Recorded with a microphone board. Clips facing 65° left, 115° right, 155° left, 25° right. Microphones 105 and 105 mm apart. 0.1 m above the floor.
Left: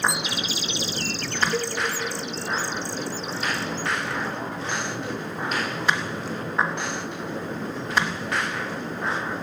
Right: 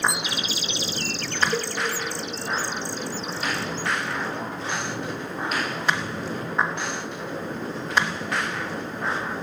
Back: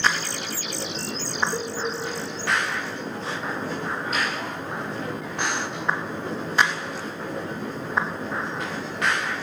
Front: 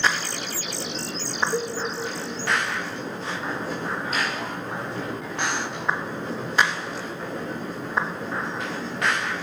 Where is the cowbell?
100° right, 1.8 m.